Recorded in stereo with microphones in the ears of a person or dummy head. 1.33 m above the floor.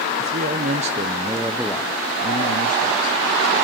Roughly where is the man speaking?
Right.